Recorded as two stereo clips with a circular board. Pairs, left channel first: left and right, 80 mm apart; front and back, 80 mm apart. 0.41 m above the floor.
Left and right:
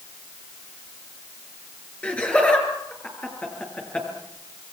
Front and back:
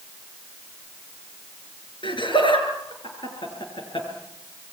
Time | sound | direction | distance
2.0 | laughter | 15° left | 6 m